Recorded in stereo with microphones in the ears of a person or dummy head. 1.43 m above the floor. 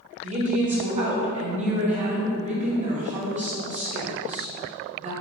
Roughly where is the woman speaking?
Right.